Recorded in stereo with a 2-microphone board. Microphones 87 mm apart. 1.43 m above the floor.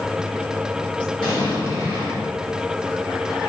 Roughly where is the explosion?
Left.